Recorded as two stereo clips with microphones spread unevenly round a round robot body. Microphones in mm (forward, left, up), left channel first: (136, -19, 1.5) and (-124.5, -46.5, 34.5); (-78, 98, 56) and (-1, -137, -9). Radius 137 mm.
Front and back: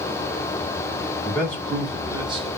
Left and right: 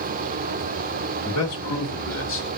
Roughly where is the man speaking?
Left.